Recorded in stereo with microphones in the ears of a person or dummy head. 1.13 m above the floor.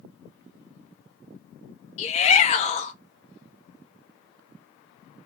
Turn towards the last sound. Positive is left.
turn(degrees=30)  # may be behind; listen again after turning